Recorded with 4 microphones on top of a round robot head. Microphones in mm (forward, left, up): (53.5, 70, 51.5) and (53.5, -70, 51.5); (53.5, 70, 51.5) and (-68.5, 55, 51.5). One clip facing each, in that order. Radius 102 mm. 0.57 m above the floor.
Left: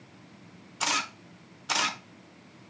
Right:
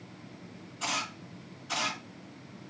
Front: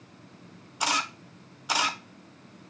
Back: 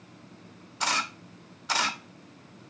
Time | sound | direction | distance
0.8 | a camera shutter | 85° left | 0.8 m